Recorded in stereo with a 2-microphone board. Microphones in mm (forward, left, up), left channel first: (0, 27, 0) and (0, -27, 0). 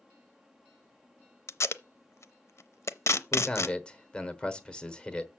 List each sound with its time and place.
1.5 s tape being pulled: 55° left (ahead or behind), 0.6 m
3.3 s a man speaking: 15° left (ahead or behind), 1.2 m